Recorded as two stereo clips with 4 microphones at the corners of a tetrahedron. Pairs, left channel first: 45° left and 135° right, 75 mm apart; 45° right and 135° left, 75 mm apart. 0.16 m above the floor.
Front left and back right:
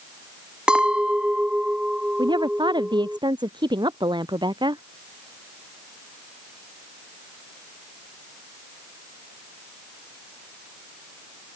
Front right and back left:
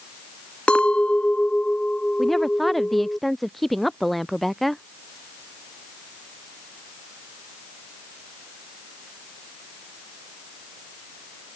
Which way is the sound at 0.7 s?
85° right.